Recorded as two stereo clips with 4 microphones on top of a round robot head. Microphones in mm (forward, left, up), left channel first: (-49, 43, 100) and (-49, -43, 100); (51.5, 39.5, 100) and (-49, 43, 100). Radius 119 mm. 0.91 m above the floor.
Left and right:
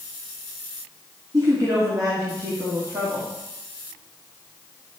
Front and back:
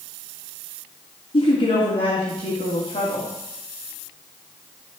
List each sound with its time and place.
1.3 s a woman speaking: 35° right, 2 m